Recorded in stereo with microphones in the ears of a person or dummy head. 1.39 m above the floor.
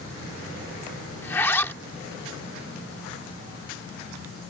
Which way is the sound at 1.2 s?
Centre (ahead or behind).